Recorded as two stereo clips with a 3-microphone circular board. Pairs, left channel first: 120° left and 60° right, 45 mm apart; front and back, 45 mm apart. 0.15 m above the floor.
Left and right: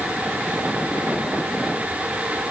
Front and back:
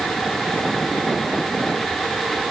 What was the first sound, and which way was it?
Only background noise.